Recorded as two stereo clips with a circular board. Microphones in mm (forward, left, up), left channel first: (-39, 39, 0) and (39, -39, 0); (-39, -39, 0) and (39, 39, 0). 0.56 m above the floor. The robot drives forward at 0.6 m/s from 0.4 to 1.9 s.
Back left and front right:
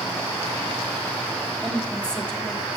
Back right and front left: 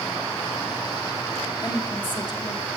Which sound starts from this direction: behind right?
A woman speaking, at 1.6 s.